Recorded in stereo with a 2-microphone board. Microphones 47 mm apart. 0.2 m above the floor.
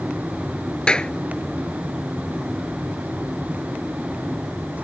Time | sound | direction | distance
0.9 | a clap | 20° left (ahead or behind) | ?